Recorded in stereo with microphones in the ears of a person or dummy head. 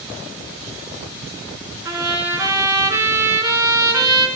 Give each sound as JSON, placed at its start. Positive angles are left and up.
{"t": 1.9, "sound": "a trumpet", "side_deg": -25, "distance_m": 5.0}